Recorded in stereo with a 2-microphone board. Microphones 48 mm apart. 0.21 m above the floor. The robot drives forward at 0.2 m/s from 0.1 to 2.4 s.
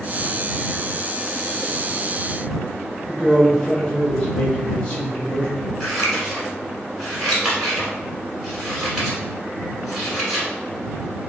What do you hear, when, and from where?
3.1 s a man speaking: 10° left (ahead or behind), 1.6 m
5.8 s scissors: 5° right (ahead or behind), 1.5 m